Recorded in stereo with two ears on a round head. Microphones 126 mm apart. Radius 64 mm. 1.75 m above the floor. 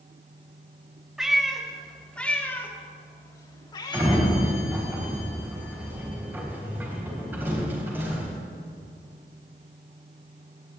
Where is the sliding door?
15° right (ahead or behind), 4 m.